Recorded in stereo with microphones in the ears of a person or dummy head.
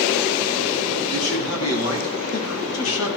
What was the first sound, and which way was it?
A man speaking, 85° left.